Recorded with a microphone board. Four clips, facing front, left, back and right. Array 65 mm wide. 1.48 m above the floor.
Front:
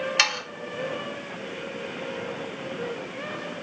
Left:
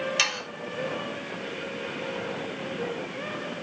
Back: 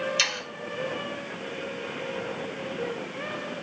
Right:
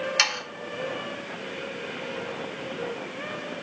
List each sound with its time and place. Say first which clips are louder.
0.2 s sawing: right 2 dB, front 4 dB; 20° right, 2 m